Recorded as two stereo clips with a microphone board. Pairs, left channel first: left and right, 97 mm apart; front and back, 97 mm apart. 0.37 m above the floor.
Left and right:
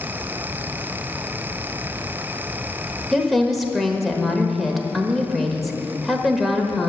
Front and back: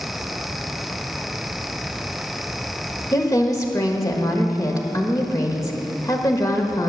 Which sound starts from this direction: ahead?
A woman speaking, at 3.1 s.